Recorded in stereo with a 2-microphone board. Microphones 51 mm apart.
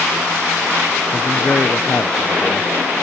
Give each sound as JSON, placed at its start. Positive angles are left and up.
{"t": 1.1, "sound": "a man speaking", "side_deg": 35}